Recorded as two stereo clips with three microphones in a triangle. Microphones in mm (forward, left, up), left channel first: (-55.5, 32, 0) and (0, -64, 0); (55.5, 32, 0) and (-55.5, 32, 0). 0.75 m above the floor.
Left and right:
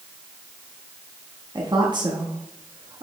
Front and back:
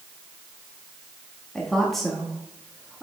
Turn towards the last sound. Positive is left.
turn(degrees=-90)